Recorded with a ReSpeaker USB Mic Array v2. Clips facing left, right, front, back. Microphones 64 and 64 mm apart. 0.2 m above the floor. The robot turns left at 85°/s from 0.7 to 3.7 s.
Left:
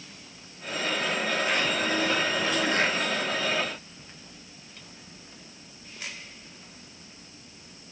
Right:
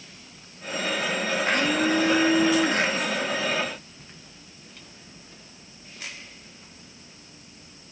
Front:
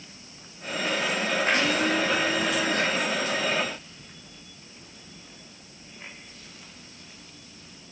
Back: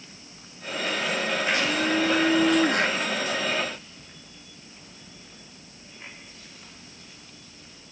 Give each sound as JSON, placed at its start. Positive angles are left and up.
{"t": 1.4, "sound": "a blender", "azimuth_deg": -45, "distance_m": 4.0}